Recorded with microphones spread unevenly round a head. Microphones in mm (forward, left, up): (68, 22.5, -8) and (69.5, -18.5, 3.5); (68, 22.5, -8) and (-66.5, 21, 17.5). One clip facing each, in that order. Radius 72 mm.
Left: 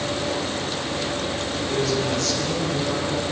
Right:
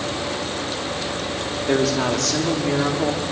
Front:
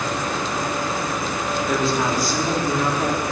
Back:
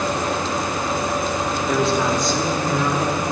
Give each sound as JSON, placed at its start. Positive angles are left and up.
{"t": 1.7, "sound": "a woman speaking", "azimuth_deg": -90, "distance_m": 3.5}